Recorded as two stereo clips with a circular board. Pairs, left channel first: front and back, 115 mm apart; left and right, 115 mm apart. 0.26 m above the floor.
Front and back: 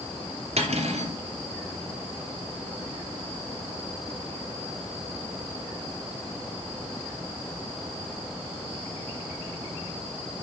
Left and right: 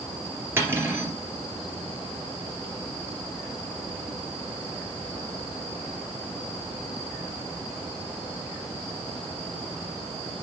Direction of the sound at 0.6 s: 160° right.